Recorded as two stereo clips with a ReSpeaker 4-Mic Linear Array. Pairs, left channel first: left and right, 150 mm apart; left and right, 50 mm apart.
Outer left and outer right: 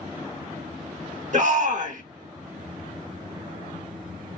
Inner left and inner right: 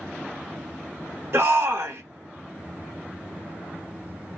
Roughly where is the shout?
Right.